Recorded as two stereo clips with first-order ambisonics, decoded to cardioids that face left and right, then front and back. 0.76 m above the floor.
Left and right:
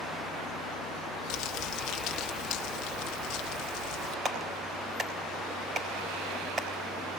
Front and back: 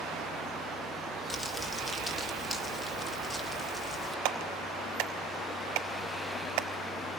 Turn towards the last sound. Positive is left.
turn(degrees=-160)